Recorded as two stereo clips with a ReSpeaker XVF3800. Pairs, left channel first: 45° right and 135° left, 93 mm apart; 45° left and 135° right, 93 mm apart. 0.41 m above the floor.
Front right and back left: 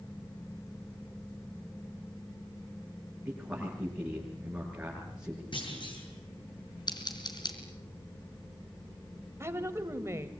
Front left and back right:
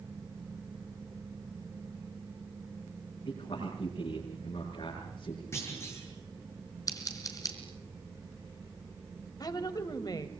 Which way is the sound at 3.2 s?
55° left.